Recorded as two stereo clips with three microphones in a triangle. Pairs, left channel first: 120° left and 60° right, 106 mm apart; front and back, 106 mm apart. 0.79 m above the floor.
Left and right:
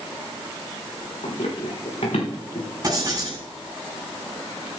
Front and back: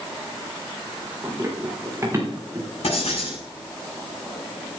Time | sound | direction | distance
1.2 | running footsteps | 115° left | 5.5 m
2.8 | writing | 5° right | 6.5 m